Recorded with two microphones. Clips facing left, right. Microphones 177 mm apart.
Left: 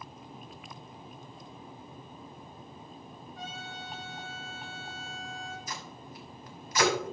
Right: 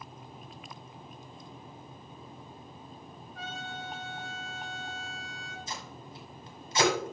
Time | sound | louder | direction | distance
3.4 | a trumpet | right 3 dB | 60° right (ahead or behind) | 1.6 m
5.7 | tape being pulled | even | 25° right (ahead or behind) | 1.4 m